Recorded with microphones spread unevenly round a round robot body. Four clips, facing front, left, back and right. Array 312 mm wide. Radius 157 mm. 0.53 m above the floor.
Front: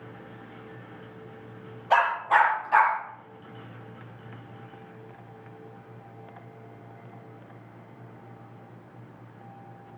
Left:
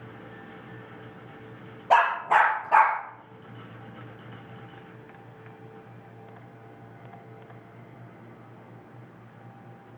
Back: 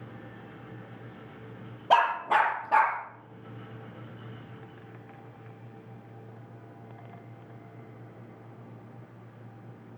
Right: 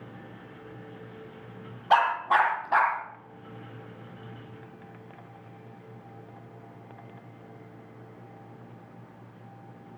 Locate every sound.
1.9 s a dog barking: 150° left, 6 m; by 3.0 s 140° left, 6 m